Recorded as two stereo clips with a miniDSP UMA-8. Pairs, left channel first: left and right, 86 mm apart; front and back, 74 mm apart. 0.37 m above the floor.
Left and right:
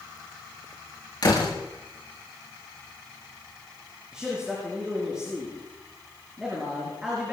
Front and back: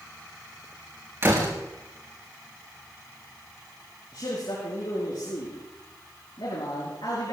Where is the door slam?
125° left, 5 m.